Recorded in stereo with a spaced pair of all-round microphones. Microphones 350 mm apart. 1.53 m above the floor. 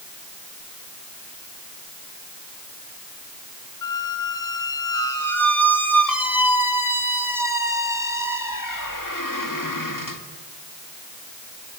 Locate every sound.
3.8 s a squeak: 65° left (ahead or behind), 2 m